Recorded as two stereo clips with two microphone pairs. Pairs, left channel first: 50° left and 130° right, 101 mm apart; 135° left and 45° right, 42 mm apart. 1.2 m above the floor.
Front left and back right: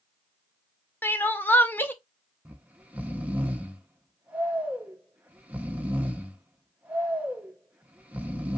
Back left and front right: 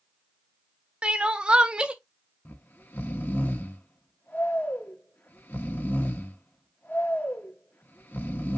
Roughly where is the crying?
Ahead.